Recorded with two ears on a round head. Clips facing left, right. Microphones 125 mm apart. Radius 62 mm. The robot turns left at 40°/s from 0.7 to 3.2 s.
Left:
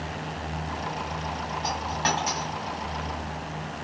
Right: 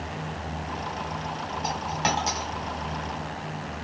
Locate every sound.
1.6 s a dropped coin: 10° right (ahead or behind), 1.9 m; by 2.5 s 40° right (ahead or behind), 1.9 m